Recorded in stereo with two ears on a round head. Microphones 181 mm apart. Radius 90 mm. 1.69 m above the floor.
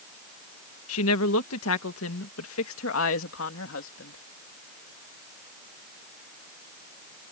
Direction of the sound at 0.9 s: 85° left.